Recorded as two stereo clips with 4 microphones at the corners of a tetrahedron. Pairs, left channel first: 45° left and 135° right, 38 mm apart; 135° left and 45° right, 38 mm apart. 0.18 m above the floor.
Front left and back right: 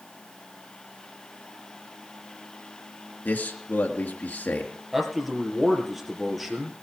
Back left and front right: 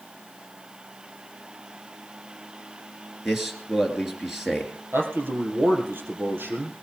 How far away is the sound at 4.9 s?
About 3.5 m.